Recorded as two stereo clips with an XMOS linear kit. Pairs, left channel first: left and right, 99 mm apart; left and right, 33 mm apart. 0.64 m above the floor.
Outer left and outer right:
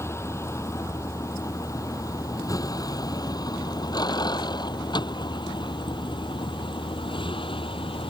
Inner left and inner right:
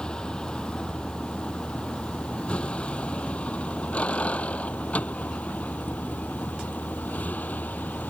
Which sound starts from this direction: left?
A vehicle, at 0.0 s.